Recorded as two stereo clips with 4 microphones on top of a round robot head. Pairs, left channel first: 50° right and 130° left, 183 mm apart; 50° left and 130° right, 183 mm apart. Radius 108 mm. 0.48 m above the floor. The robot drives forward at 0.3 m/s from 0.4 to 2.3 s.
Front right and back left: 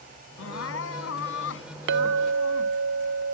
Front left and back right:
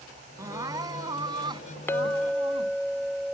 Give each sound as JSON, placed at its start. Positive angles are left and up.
{"t": 0.4, "sound": "crying", "azimuth_deg": -60}
{"t": 1.9, "sound": "a clink", "azimuth_deg": 125}